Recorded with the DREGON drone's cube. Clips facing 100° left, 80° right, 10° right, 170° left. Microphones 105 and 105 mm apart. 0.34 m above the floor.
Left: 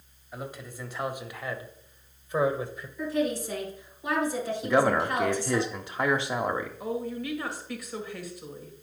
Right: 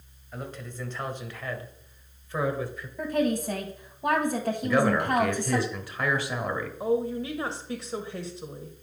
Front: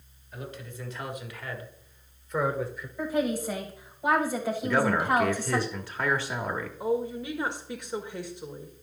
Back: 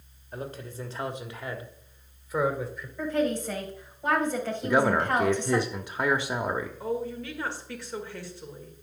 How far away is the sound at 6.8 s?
About 1.4 m.